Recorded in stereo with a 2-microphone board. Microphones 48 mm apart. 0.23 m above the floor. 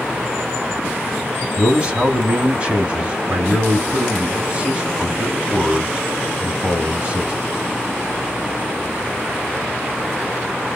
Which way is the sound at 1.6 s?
25° right (ahead or behind).